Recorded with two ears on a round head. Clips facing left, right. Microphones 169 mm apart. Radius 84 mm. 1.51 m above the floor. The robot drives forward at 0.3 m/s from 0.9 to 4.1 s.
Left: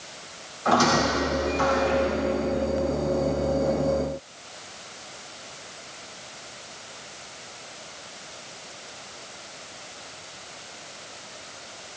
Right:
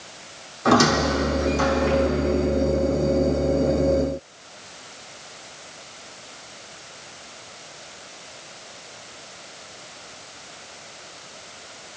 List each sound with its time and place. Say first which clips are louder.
0.7 s a squeak: right 3 dB; 65° right (ahead or behind), 3.5 m; by 2.0 s 60° right (ahead or behind), 3.5 m